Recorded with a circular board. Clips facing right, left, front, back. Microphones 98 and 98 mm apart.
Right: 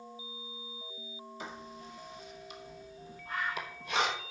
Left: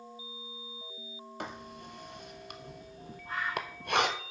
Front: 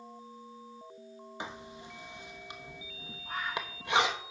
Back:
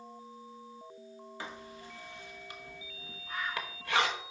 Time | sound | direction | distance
1.4 | writing | 70° left | 0.9 m
3.2 | a bird | 35° left | 6.5 m